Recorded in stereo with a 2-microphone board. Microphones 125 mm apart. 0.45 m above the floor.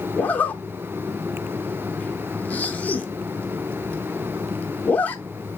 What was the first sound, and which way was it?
A zipper, 15° left (ahead or behind).